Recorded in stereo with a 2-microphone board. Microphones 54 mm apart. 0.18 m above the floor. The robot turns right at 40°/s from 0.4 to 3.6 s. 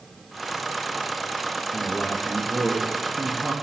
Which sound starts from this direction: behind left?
A man speaking, at 1.7 s.